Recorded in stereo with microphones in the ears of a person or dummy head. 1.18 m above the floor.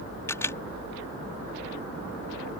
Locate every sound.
0.3 s a camera shutter: 10° left (ahead or behind)